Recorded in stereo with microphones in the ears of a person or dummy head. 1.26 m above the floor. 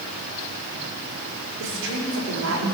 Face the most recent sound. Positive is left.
turn(degrees=-85)